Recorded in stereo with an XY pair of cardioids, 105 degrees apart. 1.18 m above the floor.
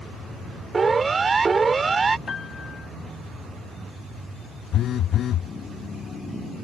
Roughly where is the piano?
Ahead left.